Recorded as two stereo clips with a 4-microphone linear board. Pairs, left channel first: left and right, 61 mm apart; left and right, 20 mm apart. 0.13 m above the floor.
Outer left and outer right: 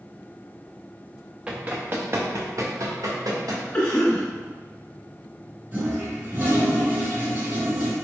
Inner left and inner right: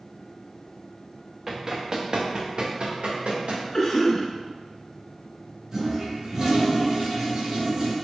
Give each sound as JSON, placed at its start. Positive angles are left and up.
{"t": 1.5, "sound": "running footsteps", "side_deg": -15, "distance_m": 1.0}
{"t": 3.7, "sound": "a cough", "side_deg": 25, "distance_m": 1.6}
{"t": 5.7, "sound": "a toilet flushing", "side_deg": -25, "distance_m": 1.8}